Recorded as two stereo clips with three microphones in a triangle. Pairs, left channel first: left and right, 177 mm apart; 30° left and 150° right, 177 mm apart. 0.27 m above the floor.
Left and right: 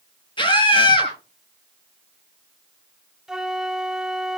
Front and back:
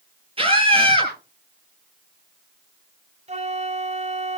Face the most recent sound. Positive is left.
turn(degrees=-175)